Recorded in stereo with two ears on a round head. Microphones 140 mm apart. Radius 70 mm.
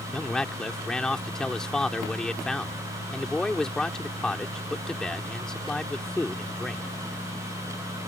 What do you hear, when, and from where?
0.1 s a man speaking: 5° left (ahead or behind)